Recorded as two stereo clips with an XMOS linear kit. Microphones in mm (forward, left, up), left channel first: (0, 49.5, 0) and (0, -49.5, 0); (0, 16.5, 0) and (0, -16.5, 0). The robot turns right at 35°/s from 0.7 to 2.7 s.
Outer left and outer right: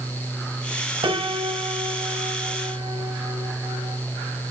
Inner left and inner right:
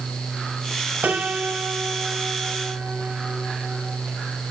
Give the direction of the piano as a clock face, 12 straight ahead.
4 o'clock.